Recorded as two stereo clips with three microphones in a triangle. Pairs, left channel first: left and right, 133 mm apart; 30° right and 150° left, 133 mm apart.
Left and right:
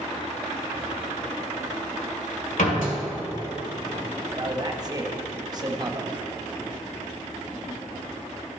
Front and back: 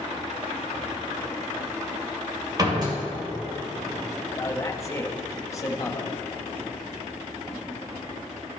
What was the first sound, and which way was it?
A door slam, 90° left.